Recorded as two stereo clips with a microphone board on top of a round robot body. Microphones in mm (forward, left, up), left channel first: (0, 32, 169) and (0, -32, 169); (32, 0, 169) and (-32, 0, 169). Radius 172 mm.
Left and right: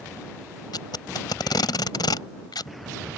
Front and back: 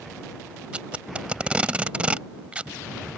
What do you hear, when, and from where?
0.7 s tape being pulled: 105° left